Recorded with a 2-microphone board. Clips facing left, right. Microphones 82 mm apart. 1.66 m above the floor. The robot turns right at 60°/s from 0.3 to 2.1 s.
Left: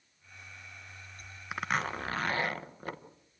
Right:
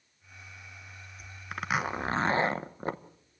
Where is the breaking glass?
No breaking glass in this recording.